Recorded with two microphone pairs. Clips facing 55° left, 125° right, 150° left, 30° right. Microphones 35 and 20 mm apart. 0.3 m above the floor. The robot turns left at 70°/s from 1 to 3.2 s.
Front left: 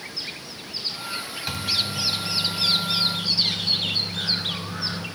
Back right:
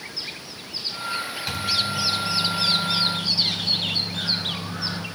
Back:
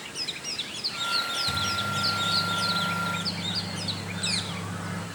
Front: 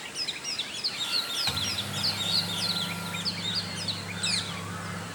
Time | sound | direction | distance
1.5 | a microwave | 35° right | 1.4 m